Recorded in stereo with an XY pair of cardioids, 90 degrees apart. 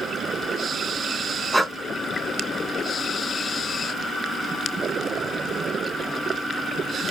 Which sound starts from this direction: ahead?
Breathing, at 1.5 s.